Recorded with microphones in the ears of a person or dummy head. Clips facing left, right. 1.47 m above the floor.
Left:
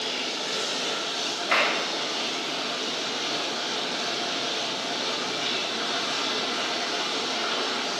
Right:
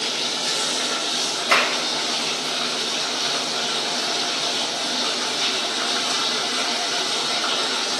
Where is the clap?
60° right (ahead or behind), 2.5 m.